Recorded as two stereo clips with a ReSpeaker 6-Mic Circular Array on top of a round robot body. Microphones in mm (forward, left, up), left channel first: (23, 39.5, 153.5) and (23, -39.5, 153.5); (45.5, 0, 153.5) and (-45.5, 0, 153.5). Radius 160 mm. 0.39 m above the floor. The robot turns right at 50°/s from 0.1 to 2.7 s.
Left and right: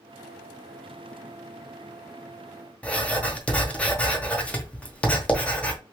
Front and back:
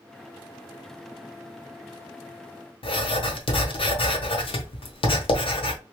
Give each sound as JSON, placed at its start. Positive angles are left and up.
{"t": 2.8, "sound": "writing", "azimuth_deg": 15, "distance_m": 1.0}